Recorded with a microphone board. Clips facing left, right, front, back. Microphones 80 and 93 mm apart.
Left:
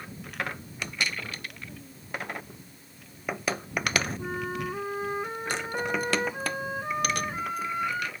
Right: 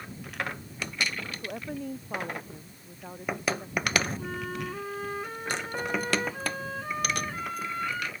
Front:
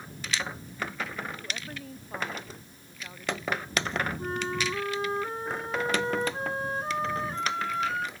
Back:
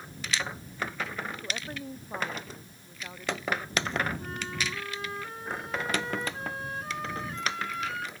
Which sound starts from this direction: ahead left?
A flute, at 4.2 s.